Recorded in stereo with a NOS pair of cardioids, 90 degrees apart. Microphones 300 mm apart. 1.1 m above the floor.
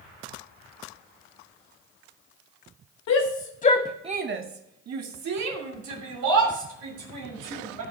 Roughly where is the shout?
Ahead left.